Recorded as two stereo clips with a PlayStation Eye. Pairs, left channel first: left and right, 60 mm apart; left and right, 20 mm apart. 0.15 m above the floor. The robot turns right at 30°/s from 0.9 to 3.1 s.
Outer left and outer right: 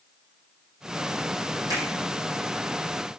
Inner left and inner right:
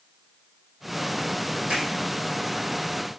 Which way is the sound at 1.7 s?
80° right.